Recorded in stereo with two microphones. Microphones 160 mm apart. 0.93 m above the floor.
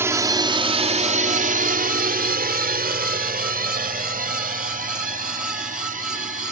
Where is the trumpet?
No trumpet in this recording.